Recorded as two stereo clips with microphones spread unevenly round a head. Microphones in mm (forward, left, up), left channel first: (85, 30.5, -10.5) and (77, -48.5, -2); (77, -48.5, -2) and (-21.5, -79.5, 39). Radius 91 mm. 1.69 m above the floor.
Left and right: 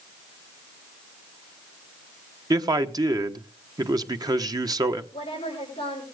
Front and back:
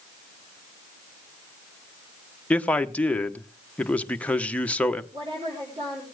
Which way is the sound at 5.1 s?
140° left.